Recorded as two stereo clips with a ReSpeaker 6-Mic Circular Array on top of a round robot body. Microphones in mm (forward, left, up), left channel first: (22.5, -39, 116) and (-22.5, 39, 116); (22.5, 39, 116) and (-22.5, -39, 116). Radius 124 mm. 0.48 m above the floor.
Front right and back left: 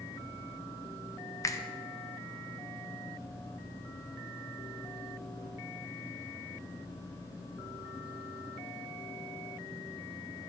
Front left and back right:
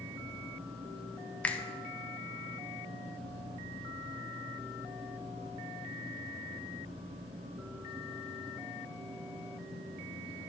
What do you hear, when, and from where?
1.4 s a finger snap: 15° right, 0.7 m